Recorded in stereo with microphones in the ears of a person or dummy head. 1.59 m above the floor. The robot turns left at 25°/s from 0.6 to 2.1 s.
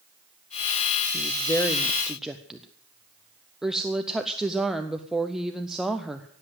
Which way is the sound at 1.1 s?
25° left (ahead or behind).